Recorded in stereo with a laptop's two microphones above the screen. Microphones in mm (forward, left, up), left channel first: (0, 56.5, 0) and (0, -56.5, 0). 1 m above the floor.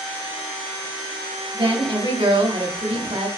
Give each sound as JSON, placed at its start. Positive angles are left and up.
{"t": 1.5, "sound": "a woman speaking", "side_deg": -50, "distance_m": 1.1}